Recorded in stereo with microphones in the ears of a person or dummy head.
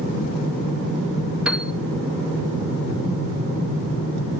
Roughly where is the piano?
Centre.